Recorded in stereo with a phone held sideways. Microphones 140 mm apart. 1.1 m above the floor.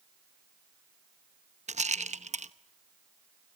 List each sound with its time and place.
1.7 s a rattle: 55° right (ahead or behind), 0.9 m